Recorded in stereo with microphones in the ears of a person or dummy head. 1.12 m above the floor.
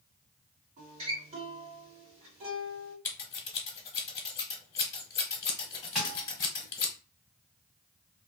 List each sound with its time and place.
0.8 s a guitar: 35° right (ahead or behind), 1.5 m
3.0 s scissors: 20° left (ahead or behind), 1.0 m
6.0 s a thud: 5° right (ahead or behind), 1.3 m